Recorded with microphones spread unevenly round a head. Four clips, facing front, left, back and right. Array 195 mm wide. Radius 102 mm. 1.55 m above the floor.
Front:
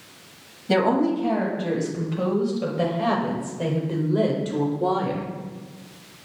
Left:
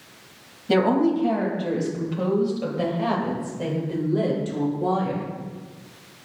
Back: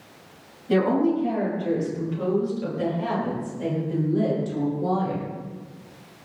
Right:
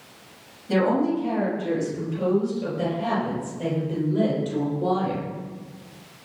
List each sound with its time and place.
0.7 s a woman speaking: 35° left, 8 m; by 5.2 s 5° left, 4.5 m